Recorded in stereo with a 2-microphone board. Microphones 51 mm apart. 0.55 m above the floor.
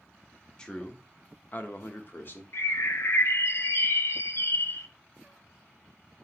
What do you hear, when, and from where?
0.6 s a man speaking: 15° left (ahead or behind), 1.0 m; by 2.4 s 45° left (ahead or behind), 1.0 m
2.5 s a bird: 60° left (ahead or behind), 0.7 m